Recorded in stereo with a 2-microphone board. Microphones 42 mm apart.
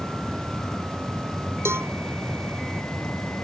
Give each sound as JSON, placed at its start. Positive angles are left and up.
{"t": 1.6, "sound": "a cowbell", "side_deg": -75}